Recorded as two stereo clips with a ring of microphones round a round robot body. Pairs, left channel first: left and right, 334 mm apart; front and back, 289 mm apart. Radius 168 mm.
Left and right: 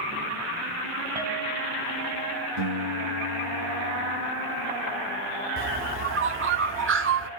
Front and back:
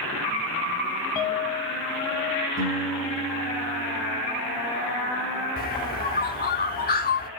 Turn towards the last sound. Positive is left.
turn(degrees=-50)